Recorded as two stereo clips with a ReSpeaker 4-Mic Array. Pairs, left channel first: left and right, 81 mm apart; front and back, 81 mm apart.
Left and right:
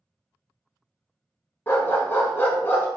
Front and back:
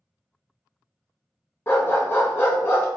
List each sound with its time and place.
1.7 s a dog barking: 45° left, 0.6 m